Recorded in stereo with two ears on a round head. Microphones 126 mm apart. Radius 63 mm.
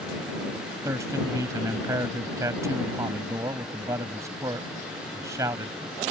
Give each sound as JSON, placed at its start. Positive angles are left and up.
{"t": 0.8, "sound": "a man speaking", "side_deg": -20}